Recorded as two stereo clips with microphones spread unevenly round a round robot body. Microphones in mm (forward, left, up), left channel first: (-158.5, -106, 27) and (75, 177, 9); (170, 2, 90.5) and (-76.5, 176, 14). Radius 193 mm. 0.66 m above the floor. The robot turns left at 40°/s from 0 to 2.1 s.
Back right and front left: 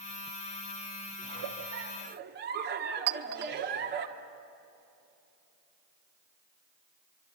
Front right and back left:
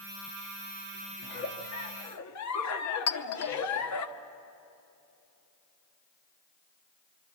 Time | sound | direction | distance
1.2 | a giggle | 30° left | 1.5 m
3.1 | a clink | 10° left | 1.0 m